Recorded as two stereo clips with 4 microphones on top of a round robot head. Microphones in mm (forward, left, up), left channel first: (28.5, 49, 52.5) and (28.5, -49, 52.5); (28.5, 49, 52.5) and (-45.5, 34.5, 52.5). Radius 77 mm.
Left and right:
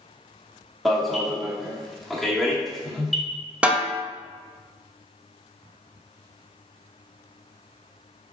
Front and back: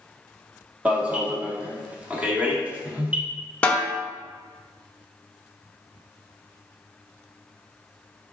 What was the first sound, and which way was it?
An alarm, 175° left.